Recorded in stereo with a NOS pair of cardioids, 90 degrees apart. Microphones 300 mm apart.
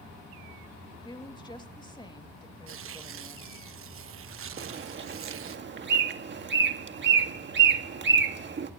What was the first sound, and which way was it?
A woman speaking, 15° left.